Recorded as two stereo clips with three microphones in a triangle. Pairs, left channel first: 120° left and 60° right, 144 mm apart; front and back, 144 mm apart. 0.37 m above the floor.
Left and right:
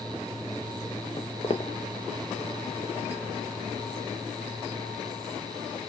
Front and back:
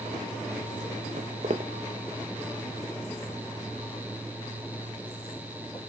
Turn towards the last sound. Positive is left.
turn(degrees=50)